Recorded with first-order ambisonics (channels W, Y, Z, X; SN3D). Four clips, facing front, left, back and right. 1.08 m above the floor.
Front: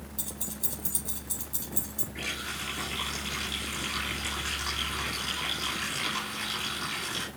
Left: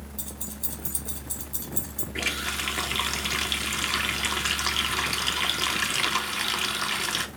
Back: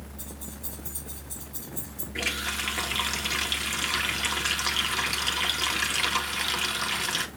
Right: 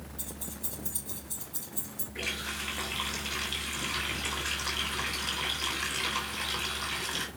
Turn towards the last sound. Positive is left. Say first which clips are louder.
# left 6 dB, back 6 dB
turn(degrees=120)